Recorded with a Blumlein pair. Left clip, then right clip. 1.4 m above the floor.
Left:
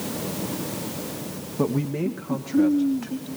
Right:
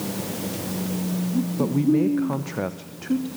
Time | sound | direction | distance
1.6 | a man speaking | 5° left | 0.9 m